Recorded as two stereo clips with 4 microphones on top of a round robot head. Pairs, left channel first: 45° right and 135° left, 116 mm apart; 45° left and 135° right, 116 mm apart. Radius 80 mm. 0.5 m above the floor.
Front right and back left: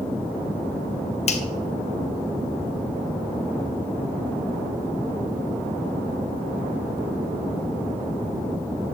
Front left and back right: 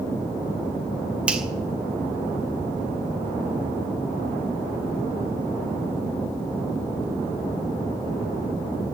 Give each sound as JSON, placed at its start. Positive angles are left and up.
{"t": 1.3, "sound": "a finger snap", "azimuth_deg": -55, "distance_m": 2.0}